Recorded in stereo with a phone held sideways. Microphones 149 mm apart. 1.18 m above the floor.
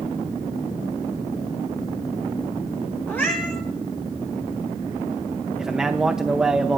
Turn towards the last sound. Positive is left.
turn(degrees=-5)  # may be behind; listen again after turning